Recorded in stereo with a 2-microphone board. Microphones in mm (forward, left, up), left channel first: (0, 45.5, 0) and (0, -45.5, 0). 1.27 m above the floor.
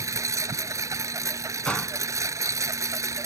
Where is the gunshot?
10° left (ahead or behind).